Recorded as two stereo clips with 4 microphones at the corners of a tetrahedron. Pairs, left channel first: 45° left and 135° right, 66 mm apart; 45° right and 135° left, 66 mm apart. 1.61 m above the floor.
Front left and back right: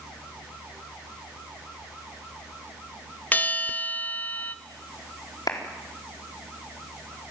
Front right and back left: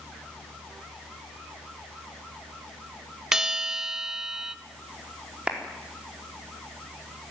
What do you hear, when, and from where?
3.3 s a bell: 60° left, 1.0 m
5.5 s a clap: 60° left, 4 m